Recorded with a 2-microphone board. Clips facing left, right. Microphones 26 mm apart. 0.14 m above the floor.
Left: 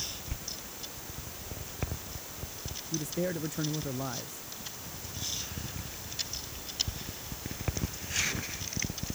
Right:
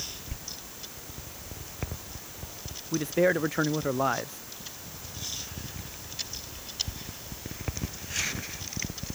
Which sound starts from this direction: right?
A man speaking, at 2.9 s.